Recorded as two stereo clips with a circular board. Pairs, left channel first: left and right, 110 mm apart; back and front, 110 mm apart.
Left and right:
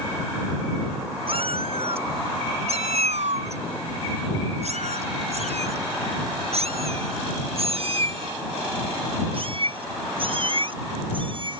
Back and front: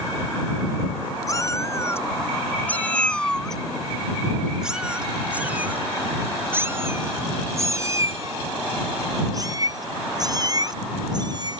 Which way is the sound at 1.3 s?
120° right.